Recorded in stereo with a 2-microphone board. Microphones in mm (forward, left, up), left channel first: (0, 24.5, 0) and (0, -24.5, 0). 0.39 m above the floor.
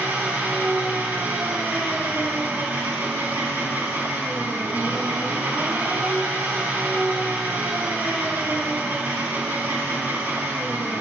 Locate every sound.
0.0 s an engine running: 45° right (ahead or behind), 3.5 m